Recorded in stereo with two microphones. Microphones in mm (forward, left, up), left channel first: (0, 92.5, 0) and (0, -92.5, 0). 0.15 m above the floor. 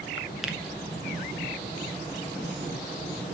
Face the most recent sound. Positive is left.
turn(degrees=0)  # may be behind; listen again after turning